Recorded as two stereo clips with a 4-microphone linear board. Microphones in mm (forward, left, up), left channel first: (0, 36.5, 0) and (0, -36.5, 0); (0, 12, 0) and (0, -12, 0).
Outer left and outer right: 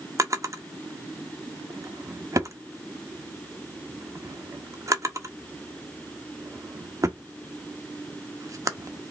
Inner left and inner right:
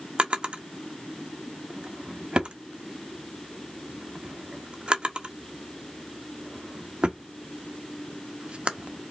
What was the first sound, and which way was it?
A drawer, 45° right (ahead or behind).